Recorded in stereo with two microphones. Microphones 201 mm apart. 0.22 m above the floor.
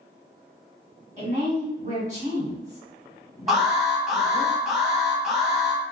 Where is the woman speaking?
35° right (ahead or behind), 1.5 m.